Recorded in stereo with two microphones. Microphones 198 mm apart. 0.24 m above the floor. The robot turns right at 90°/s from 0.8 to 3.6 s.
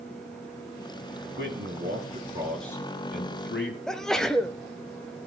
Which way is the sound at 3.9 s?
5° left (ahead or behind).